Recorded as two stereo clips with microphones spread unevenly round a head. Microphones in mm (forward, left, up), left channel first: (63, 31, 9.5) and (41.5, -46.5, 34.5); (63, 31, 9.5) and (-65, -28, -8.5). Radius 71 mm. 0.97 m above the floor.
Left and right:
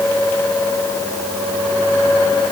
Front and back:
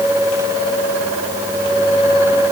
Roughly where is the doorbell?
I don't hear a doorbell.